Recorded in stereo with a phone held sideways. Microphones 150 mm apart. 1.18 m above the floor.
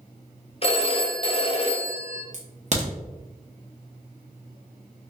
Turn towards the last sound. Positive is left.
turn(degrees=-50)  # may be behind; listen again after turning